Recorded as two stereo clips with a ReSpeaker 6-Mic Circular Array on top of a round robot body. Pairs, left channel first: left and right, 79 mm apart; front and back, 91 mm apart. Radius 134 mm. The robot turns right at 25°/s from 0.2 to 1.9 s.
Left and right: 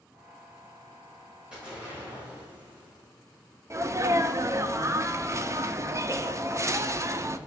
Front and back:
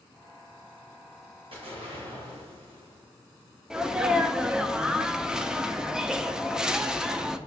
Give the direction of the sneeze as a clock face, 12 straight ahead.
3 o'clock.